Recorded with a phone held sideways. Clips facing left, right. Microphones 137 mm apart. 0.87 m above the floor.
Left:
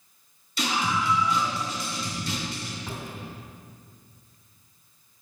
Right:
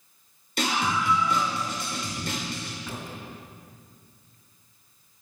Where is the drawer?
20° left (ahead or behind), 3 m.